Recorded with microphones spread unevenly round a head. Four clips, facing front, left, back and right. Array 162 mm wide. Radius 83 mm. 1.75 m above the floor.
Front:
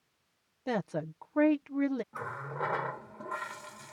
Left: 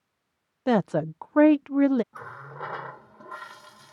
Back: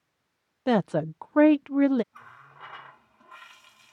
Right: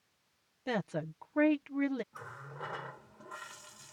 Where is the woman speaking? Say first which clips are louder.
Left 12 dB, back 9 dB; 125° left.